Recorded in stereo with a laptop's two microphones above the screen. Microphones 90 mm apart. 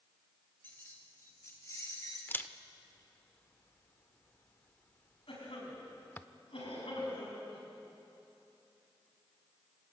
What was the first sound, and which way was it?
Keys jangling, 25° left (ahead or behind).